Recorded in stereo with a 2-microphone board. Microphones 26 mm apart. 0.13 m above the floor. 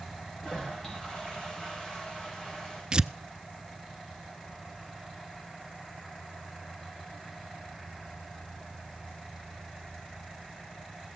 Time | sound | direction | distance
0.4 | a toilet flushing | 30° left (ahead or behind) | 6.5 m
2.9 | tearing paper | 35° right (ahead or behind) | 0.5 m